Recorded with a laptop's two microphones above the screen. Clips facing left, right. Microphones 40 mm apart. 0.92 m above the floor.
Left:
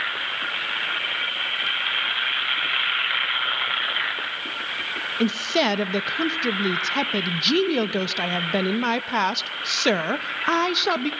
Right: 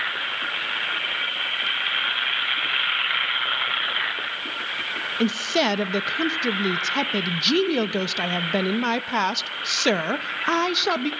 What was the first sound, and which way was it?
A woman speaking, 5° left (ahead or behind).